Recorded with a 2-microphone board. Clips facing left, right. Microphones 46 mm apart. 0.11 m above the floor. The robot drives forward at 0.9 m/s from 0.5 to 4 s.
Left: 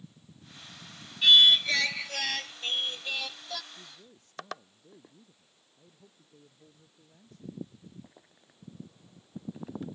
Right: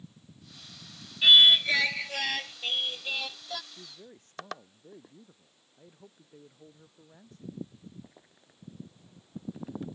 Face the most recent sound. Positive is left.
turn(degrees=-45)  # may be behind; listen again after turning